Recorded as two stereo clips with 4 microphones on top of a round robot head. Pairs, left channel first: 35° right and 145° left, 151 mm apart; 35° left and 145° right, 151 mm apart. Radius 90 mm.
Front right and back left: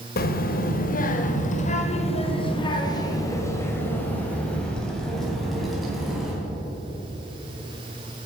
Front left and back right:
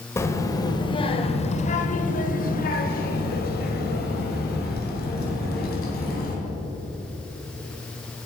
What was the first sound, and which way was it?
A child speaking, 35° right.